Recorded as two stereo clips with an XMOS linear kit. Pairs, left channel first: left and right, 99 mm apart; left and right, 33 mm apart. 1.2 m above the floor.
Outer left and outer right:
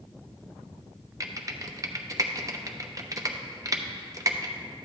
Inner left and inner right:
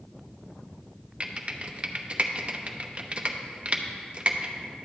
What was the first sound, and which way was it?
Typing on a keyboard, 35° right (ahead or behind).